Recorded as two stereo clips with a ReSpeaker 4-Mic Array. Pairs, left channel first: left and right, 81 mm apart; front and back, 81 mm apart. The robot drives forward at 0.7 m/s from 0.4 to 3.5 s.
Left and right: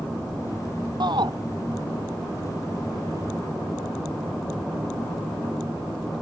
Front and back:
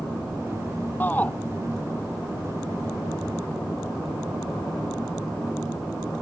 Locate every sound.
1.0 s a shout: 65° right; by 1.3 s 70° right